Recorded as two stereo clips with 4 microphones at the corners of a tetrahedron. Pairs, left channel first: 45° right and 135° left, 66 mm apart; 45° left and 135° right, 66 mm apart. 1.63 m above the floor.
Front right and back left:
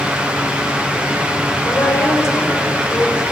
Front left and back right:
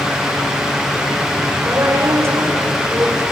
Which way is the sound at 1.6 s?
90° right.